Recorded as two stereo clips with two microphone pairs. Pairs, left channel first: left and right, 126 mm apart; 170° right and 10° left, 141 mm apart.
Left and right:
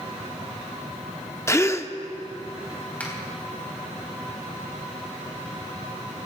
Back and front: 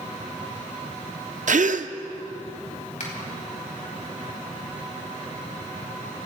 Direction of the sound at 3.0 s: 165° left.